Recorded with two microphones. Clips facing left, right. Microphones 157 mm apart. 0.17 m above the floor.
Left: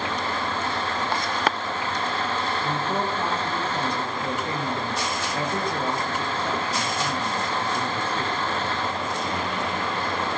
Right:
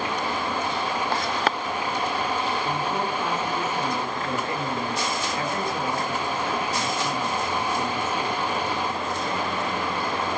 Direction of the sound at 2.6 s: 35° left (ahead or behind).